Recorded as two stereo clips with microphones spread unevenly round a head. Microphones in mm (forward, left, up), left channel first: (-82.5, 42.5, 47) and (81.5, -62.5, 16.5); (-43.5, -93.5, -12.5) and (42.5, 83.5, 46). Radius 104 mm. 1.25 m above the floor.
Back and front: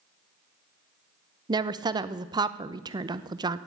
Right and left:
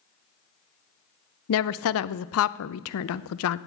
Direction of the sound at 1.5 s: 105° right.